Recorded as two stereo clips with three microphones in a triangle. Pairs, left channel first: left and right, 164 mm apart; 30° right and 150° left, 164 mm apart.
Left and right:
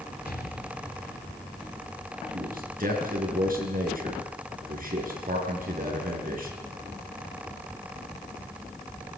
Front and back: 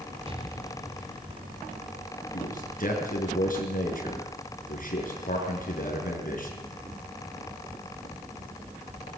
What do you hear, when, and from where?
0.3 s an explosion: 100° left, 3.5 m
2.3 s a man speaking: 60° right, 6 m